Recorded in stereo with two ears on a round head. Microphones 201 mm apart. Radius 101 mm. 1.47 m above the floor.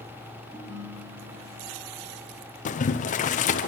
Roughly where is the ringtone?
Right.